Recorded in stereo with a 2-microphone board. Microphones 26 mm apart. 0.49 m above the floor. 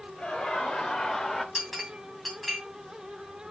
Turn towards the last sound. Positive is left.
turn(degrees=0)  # may be behind; listen again after turning